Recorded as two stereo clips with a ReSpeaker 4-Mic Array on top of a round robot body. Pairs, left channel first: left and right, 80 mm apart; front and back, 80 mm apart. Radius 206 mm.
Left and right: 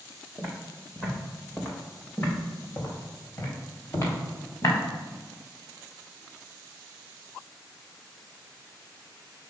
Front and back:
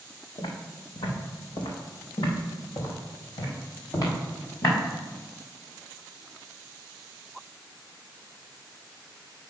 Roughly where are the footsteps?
Ahead.